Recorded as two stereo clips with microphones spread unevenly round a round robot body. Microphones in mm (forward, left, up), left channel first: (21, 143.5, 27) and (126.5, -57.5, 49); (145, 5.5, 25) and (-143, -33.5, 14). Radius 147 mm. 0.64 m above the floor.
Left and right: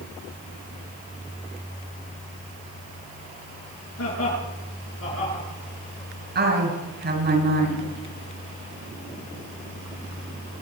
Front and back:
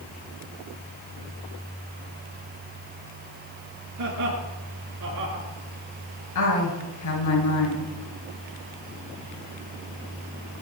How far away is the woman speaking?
About 10 m.